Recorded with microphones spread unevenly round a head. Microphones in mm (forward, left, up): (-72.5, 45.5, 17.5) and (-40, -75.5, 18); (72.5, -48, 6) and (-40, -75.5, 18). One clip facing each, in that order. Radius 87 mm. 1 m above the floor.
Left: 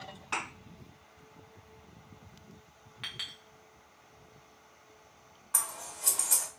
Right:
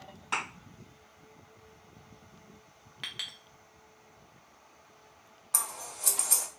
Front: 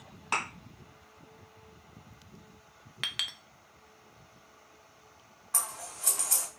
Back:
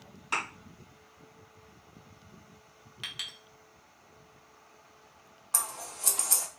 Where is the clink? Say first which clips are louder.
Even, front 5 dB; 15° right, 0.5 m.